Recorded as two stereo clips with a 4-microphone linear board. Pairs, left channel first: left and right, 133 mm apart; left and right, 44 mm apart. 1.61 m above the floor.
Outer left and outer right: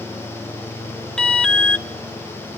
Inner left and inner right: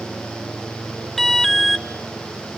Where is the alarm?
5° left (ahead or behind), 0.8 m.